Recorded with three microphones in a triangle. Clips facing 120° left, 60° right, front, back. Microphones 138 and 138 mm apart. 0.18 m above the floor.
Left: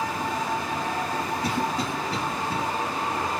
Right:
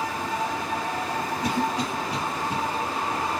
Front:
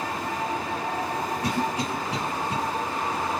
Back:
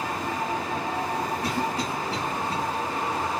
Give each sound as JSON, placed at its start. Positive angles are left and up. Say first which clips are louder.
{"t": 1.4, "sound": "a cough", "louder": "right 3 dB, front 1 dB", "azimuth_deg": -35, "distance_m": 1.2}